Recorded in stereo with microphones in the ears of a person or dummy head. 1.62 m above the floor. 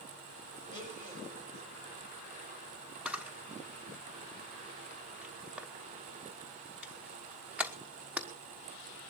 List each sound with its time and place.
0.7 s a blender: 35° right (ahead or behind), 6 m
3.0 s a camera shutter: 15° right (ahead or behind), 1.1 m